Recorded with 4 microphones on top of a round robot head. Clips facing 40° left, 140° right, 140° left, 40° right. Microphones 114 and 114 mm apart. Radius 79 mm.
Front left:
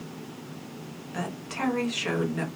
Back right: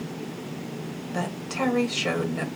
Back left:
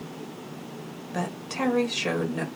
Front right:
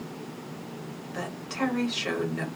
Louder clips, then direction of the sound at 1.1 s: Back right 4 dB, back left 2 dB; 165° left.